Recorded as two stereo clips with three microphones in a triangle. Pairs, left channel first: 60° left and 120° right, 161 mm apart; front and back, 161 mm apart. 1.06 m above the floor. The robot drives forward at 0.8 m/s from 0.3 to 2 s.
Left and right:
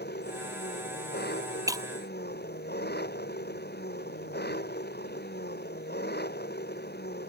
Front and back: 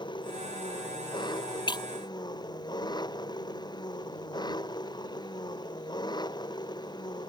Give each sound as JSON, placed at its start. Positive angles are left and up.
{"t": 0.0, "sound": "an engine running", "azimuth_deg": 60}
{"t": 1.7, "sound": "breaking glass", "azimuth_deg": -55}